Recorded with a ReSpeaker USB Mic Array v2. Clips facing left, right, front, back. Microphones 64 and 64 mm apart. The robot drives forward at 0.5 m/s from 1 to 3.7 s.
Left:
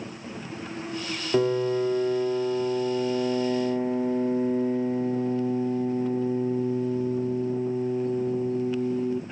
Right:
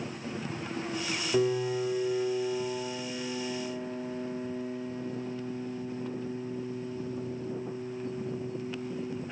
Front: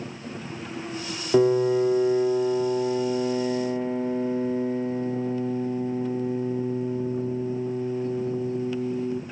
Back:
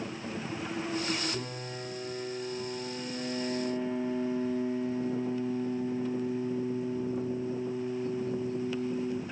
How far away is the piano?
About 1.7 m.